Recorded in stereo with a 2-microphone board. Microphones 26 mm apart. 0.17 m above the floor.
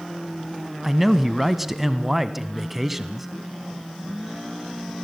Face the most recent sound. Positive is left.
turn(degrees=-10)  # may be behind; listen again after turning